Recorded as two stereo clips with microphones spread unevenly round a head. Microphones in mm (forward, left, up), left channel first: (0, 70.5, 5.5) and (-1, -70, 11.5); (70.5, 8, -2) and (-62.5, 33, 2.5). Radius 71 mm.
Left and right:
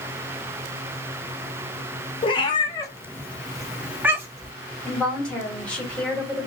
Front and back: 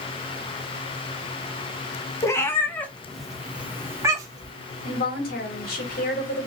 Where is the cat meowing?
50° left, 1.0 m; by 4.5 s 145° right, 1.0 m.